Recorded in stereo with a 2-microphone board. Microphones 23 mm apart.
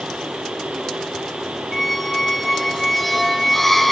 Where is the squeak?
5° left (ahead or behind), 0.6 m.